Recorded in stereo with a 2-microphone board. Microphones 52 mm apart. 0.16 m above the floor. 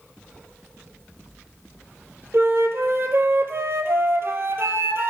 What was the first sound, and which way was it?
A flute, 55° right (ahead or behind).